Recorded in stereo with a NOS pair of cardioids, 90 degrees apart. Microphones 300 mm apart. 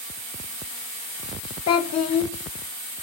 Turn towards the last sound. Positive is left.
turn(degrees=60)